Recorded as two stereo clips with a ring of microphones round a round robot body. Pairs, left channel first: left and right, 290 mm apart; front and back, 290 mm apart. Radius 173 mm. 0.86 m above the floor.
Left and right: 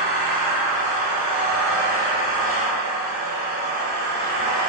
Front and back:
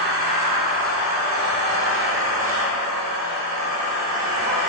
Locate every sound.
0.0 s an engine running: 155° right, 0.8 m